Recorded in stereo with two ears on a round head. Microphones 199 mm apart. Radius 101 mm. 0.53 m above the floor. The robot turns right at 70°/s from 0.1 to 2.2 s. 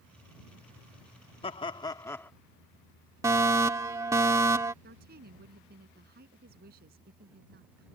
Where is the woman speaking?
45° right (ahead or behind).